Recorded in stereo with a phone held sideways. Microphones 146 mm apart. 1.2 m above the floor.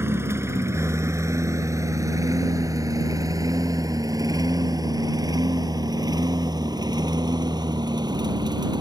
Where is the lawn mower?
20° right (ahead or behind); by 8.8 s 30° right (ahead or behind).